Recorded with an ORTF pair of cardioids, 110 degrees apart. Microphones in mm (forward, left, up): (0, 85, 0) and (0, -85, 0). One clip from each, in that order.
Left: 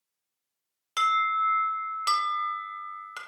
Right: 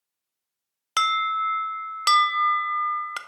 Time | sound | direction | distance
1.0 | an alarm | 40° right | 0.7 m